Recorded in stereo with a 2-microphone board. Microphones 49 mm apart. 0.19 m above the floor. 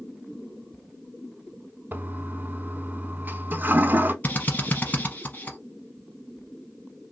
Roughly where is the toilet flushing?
Right.